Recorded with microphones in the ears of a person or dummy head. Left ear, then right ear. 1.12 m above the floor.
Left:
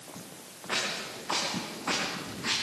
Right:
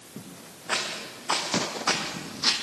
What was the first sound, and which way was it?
Footsteps, 30° right (ahead or behind).